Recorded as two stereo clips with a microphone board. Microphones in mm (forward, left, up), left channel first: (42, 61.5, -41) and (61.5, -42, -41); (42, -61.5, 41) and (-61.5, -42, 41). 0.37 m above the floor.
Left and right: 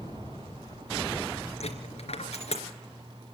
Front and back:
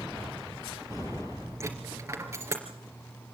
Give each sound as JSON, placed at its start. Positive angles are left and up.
{"t": 1.6, "sound": "a dropped coin", "azimuth_deg": 105, "distance_m": 3.0}